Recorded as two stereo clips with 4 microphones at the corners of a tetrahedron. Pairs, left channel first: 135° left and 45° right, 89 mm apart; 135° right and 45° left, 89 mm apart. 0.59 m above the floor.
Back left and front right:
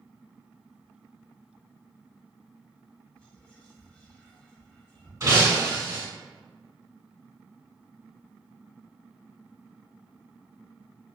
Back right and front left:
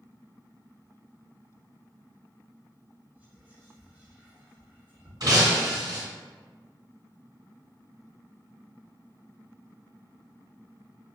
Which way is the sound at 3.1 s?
85° left.